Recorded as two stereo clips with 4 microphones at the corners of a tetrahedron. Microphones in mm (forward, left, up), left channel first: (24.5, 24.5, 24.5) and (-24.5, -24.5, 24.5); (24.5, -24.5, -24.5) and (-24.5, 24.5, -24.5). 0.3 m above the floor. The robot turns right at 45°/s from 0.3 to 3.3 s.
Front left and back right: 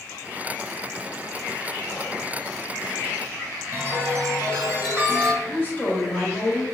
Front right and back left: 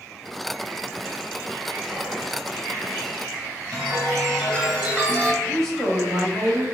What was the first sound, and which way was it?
Whispering, 30° left.